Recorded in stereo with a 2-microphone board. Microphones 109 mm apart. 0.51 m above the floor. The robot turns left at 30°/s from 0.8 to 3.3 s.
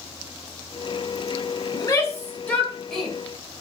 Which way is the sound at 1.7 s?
35° left (ahead or behind).